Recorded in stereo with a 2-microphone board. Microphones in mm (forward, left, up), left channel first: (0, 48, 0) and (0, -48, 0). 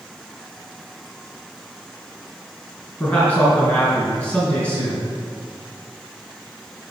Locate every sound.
3.0 s a man speaking: 20° left (ahead or behind), 4 m